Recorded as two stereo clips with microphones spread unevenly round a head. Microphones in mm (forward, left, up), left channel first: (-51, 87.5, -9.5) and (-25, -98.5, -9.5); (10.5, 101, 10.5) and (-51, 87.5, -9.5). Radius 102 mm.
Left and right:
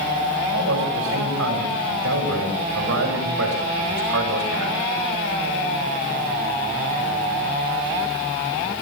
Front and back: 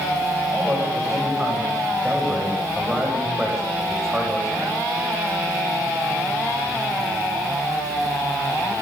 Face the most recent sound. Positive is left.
turn(degrees=-80)